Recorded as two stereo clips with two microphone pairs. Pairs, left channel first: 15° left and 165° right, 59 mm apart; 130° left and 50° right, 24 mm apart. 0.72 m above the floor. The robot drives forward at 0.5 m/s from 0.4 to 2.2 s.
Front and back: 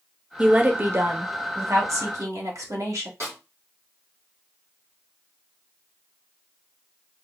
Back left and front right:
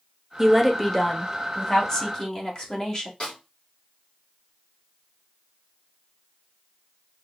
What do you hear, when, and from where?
0.4 s a woman speaking: 110° right, 0.6 m; by 3.1 s 165° right, 1.2 m
3.2 s a snare drum: 170° left, 2 m